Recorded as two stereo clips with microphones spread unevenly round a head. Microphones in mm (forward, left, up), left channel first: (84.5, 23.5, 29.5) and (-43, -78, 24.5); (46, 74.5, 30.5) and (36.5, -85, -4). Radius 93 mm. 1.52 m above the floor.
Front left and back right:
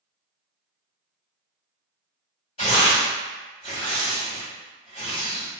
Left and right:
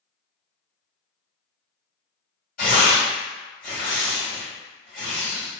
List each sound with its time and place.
2.6 s tearing paper: 95° left, 2.0 m